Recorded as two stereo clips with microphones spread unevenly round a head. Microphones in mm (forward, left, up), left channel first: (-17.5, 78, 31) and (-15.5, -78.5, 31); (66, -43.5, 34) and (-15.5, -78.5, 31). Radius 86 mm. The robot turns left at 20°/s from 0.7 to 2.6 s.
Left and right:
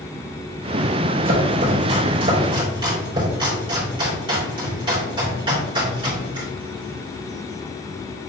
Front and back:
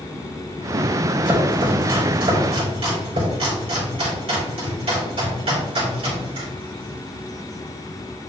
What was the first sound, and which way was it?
Chopping, 120° right.